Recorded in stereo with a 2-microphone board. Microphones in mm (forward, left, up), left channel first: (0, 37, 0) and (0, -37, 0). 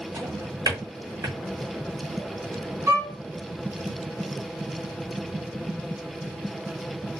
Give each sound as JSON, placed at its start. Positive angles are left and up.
{"t": 0.1, "sound": "a drawer", "side_deg": -50, "distance_m": 1.3}
{"t": 2.9, "sound": "a violin", "side_deg": -40, "distance_m": 1.1}